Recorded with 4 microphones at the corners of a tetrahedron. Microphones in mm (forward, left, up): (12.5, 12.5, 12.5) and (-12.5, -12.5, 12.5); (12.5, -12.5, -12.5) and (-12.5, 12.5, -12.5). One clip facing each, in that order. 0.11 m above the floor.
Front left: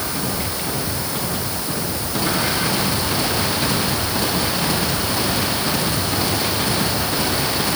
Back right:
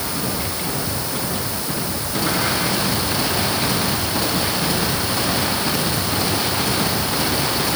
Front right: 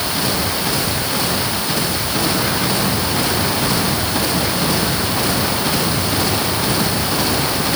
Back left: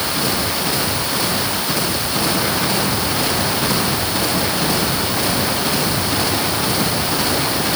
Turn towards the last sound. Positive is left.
No sound to turn to.